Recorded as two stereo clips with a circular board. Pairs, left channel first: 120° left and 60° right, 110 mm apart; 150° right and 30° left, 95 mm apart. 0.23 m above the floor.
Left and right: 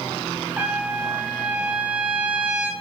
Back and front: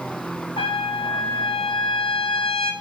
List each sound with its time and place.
0.6 s a trumpet: 140° right, 0.6 m